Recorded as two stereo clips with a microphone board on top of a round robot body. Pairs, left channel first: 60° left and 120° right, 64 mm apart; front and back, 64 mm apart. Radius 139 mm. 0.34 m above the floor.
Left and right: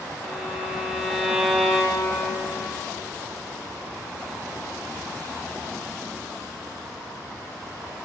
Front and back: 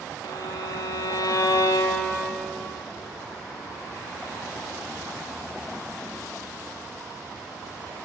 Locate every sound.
0.2 s a violin: 35° right, 0.7 m